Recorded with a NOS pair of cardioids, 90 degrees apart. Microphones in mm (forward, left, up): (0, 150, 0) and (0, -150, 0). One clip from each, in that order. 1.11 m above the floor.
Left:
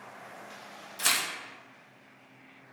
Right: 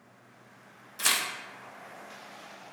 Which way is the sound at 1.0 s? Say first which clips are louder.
Even; 5° right.